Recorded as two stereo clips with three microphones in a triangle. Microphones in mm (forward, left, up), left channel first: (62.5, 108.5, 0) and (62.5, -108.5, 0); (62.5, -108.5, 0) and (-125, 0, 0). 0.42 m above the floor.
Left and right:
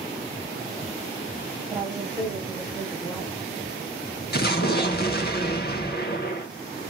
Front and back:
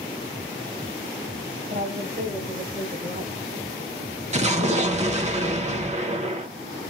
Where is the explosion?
105° left, 0.7 m.